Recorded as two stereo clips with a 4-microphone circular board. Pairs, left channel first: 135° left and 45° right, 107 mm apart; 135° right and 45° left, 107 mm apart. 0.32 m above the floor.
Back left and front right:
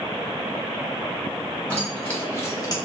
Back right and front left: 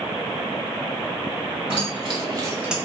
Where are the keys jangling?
60° left, 1.5 m; by 2.8 s 130° left, 0.6 m.